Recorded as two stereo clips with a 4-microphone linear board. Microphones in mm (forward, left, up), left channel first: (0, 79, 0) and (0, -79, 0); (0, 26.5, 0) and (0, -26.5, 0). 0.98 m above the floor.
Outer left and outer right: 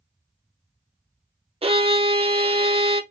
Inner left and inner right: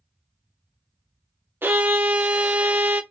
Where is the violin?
40° right (ahead or behind), 0.7 m.